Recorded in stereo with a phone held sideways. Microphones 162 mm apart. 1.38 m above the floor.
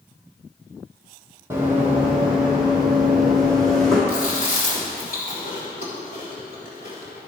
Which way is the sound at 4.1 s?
60° left (ahead or behind).